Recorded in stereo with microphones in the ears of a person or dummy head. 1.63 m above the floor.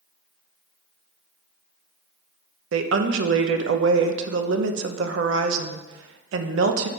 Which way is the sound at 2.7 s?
80° right.